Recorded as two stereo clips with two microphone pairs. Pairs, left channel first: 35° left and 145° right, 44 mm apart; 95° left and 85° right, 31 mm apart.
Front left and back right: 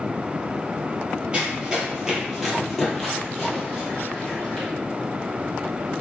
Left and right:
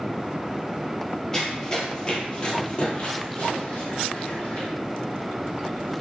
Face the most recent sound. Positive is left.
turn(degrees=100)